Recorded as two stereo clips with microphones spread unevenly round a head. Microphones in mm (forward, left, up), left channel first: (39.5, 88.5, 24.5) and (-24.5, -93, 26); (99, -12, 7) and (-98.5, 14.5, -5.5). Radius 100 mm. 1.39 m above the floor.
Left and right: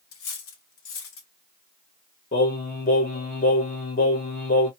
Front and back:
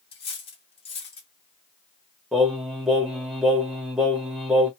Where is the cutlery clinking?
55° left, 1.2 m.